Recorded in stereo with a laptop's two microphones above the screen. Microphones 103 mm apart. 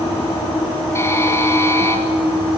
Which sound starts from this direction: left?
A buzzer, at 0.9 s.